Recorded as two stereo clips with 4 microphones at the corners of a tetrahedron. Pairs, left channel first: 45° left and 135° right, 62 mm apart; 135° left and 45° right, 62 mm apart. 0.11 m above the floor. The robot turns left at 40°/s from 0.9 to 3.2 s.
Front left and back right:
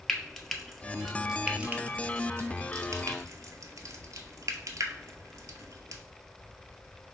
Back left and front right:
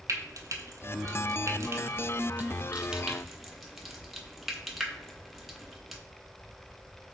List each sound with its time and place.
0.1 s frying: 40° right, 0.7 m; by 6.0 s 130° right, 0.7 m